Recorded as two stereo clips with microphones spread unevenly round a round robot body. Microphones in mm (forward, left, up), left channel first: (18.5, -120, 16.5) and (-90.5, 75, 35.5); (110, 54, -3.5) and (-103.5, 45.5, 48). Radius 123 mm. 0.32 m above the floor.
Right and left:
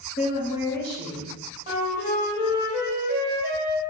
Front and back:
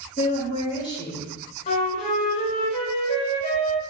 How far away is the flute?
About 2 m.